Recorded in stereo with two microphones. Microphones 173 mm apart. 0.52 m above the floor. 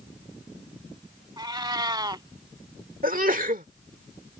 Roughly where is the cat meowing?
Right.